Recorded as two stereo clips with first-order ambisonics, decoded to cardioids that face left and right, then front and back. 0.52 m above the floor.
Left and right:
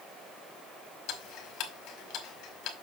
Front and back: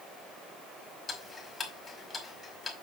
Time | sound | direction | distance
1.1 | ticking | 75° left | 2.0 m